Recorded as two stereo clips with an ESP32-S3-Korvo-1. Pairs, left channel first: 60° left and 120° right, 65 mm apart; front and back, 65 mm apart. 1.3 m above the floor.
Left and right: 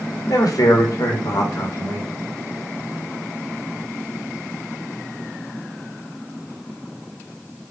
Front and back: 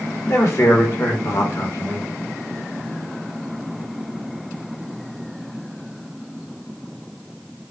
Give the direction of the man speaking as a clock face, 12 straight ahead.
11 o'clock.